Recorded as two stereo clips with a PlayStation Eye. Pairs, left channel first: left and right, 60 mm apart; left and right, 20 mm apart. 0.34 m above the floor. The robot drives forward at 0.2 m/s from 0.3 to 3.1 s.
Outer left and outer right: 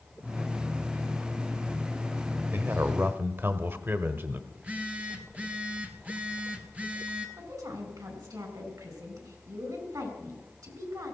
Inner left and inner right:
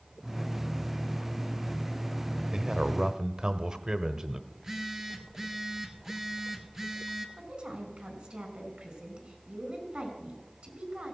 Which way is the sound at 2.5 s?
40° right (ahead or behind).